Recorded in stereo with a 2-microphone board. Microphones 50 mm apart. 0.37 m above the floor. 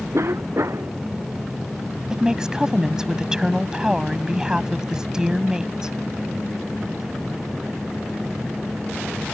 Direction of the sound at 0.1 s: 65° right (ahead or behind).